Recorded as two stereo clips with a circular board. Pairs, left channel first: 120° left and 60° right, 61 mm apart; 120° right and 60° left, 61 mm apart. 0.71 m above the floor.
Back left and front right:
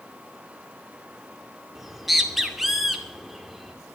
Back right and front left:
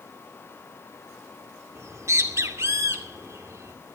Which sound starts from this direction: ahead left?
A bird, at 1.8 s.